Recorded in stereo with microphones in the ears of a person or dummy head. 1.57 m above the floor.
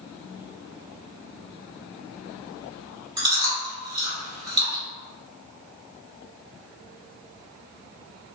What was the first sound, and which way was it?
Chewing, 25° right (ahead or behind).